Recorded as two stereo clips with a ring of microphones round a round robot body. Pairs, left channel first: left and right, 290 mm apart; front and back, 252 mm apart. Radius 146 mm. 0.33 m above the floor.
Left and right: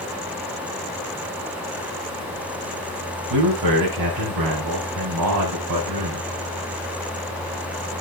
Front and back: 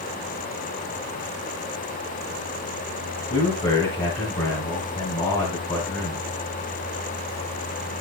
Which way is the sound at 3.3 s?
70° right.